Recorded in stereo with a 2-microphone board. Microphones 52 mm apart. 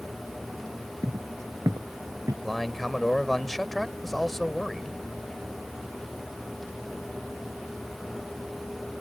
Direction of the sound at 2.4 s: 5° left (ahead or behind).